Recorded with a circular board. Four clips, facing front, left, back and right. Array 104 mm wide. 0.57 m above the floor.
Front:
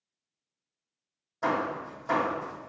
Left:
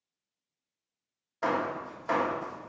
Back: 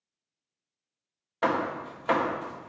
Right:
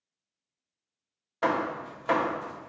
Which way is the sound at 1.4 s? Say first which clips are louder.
Right 2 dB, back 2 dB; 155° right.